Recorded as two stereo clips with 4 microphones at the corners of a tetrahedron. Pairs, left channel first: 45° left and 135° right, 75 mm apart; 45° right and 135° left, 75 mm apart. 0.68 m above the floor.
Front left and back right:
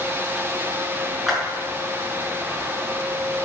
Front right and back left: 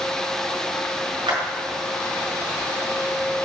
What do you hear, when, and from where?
1.3 s a clap: 135° left, 6 m